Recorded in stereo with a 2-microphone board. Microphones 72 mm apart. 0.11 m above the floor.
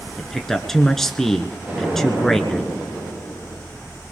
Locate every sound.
0.2 s a man speaking: 5° left (ahead or behind), 1.1 m
1.6 s an explosion: 25° right (ahead or behind), 9.5 m